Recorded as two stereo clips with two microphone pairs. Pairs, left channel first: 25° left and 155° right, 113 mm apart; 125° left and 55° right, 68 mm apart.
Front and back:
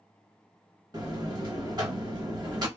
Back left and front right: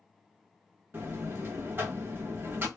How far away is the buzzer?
About 0.9 m.